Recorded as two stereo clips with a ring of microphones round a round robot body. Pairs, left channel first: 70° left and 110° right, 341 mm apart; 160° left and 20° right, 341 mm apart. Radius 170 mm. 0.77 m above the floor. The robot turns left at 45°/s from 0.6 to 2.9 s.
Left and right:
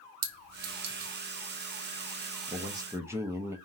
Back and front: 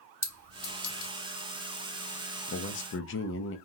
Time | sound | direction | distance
0.2 | a clink | 120° right | 1.1 m
2.5 | a man speaking | 170° right | 0.6 m